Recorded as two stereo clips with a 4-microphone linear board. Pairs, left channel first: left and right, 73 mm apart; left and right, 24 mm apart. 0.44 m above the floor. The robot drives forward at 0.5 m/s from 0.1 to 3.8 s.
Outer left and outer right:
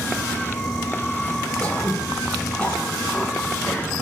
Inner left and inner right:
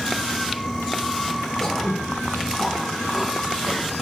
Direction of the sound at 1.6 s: 20° left (ahead or behind).